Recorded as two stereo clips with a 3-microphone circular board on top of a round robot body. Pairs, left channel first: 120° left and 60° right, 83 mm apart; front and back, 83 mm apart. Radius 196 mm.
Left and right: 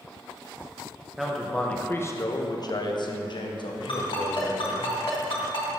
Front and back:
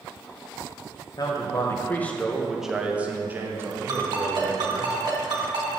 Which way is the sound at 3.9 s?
145° left.